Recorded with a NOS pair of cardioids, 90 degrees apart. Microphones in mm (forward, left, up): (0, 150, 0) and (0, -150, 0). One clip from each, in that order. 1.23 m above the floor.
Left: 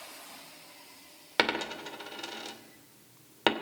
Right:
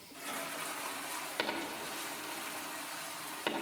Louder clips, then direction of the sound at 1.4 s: Left 10 dB; 65° left.